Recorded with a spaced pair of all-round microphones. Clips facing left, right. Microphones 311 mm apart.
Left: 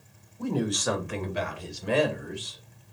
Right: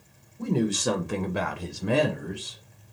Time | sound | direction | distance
0.4 | a woman speaking | 25° right (ahead or behind) | 1.1 m